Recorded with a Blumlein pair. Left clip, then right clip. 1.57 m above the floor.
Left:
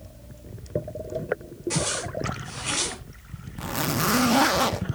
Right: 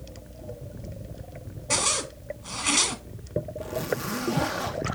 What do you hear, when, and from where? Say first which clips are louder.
1.7 s a zipper: right 3 dB; 70° right, 2.5 m
3.6 s a zipper: left 7 dB; 30° left, 1.0 m